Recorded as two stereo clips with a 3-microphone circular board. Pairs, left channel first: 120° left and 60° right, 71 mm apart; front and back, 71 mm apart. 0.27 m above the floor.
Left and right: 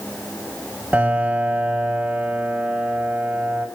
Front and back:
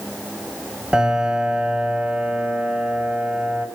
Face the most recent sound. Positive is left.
turn(degrees=-110)